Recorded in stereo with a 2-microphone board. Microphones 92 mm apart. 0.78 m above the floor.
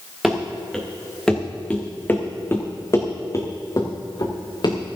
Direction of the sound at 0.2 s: 5° right (ahead or behind).